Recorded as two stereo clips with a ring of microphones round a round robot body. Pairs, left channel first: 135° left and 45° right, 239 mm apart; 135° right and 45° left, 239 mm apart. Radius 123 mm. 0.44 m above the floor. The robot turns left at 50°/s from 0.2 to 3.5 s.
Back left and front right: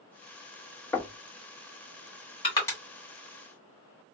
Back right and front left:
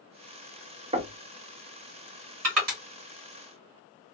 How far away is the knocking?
About 0.8 m.